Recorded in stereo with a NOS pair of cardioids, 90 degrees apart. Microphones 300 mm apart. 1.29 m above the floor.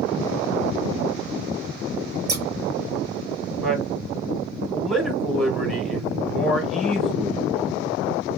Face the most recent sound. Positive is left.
turn(degrees=0)